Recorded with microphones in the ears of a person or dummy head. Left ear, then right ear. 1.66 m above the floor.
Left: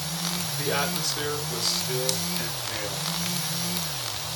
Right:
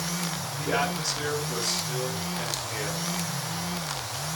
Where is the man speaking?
75° left (ahead or behind), 5.5 m.